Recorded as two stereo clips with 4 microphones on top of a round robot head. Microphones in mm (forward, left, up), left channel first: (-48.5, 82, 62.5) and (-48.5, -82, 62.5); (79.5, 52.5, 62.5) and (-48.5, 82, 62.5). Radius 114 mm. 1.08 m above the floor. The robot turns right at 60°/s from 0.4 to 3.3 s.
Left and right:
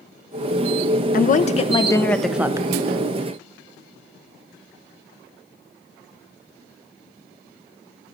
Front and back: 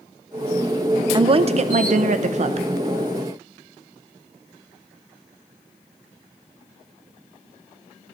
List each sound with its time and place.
1.1 s a woman speaking: 115° left, 0.6 m; by 2.7 s 155° right, 0.6 m